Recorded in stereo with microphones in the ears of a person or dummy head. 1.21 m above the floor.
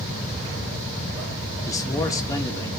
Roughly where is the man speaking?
Centre.